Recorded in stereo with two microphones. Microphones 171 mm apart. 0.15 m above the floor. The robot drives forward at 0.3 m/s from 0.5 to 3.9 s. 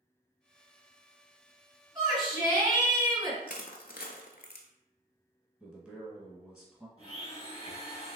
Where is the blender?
20° left (ahead or behind), 1.5 m.